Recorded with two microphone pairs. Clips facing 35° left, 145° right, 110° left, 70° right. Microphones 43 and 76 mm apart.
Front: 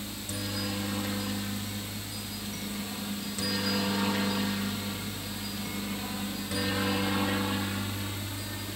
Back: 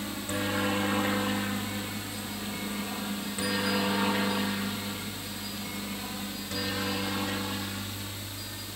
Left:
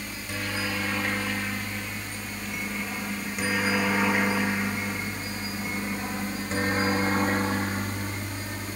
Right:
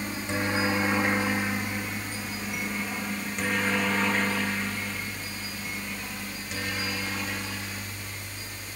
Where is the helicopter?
120° right; by 8.8 s 100° left.